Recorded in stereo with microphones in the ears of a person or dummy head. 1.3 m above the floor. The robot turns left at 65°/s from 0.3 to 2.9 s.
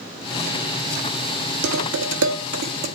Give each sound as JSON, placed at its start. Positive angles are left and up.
{"t": 1.6, "sound": "dishes clattering", "side_deg": -65, "distance_m": 2.0}